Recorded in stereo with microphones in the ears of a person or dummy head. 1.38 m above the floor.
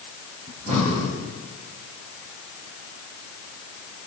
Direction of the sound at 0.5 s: 40° right (ahead or behind).